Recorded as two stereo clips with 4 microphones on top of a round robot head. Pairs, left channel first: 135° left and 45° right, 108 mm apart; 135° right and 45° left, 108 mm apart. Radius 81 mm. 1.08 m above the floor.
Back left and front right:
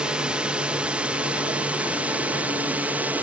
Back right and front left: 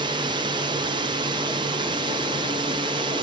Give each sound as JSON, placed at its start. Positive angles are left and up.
{"t": 0.0, "sound": "a drone", "azimuth_deg": 30}